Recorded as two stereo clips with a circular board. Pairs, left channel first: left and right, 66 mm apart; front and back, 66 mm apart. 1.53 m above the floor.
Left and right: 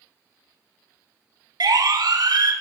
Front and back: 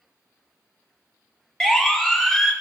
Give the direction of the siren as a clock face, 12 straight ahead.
3 o'clock.